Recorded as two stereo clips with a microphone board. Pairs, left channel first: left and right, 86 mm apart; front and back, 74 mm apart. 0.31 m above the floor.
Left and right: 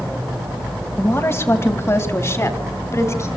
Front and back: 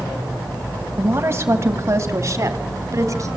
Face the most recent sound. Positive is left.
turn(degrees=140)